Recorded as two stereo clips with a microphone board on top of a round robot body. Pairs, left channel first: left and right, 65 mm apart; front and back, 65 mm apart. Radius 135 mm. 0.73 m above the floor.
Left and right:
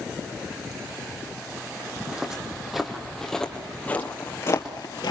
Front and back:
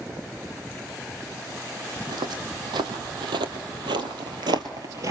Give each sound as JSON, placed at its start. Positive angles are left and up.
{"t": 2.0, "sound": "footsteps", "azimuth_deg": -170, "distance_m": 2.5}